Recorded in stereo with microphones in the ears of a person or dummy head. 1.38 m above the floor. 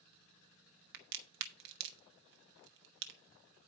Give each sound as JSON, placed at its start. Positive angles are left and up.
{"t": 0.9, "sound": "a crack", "side_deg": -55, "distance_m": 1.0}